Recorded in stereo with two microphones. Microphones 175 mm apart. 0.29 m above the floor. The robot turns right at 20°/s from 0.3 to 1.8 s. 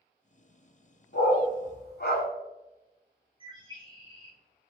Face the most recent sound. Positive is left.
turn(degrees=-30)  # may be behind; listen again after turning